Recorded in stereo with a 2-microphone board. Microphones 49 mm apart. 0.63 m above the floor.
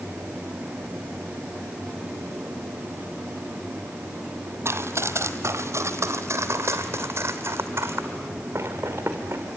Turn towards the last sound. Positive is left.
turn(degrees=-50)  # may be behind; listen again after turning